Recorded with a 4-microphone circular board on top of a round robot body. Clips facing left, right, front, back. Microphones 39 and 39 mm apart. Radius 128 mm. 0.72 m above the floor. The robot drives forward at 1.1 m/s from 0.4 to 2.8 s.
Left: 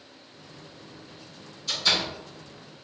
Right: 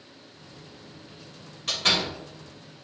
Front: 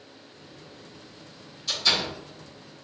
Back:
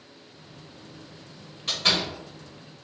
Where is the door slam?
125° right, 3 m; by 2.1 s 135° right, 3.5 m.